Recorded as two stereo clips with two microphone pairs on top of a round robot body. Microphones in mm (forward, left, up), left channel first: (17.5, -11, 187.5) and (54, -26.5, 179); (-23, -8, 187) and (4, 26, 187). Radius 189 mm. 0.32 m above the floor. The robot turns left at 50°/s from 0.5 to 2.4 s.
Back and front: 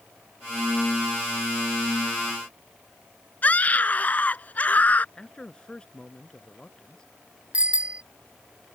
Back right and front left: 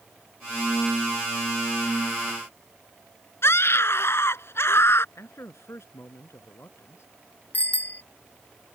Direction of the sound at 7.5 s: 80° right.